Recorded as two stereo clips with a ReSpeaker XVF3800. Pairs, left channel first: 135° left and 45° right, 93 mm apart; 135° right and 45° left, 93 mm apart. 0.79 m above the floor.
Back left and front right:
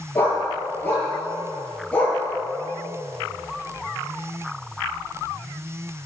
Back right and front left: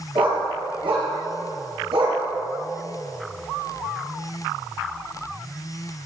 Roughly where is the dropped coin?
I don't hear a dropped coin.